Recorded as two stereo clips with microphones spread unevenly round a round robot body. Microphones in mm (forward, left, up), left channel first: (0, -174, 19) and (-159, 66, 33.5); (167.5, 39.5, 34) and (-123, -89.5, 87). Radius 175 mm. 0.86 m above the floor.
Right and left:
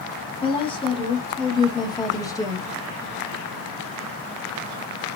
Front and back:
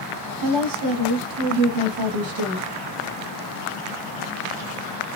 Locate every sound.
0.4 s a woman speaking: 130° right, 2.5 m; by 2.7 s 135° right, 1.3 m